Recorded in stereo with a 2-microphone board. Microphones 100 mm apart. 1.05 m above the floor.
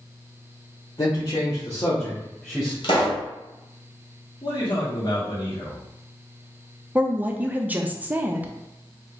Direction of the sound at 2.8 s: 60° left (ahead or behind).